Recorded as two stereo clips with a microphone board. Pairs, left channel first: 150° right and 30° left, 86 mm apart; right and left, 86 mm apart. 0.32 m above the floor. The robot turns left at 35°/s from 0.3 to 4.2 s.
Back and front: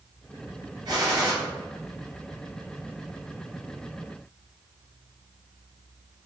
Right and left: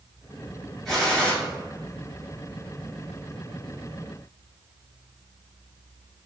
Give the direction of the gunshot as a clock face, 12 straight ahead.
12 o'clock.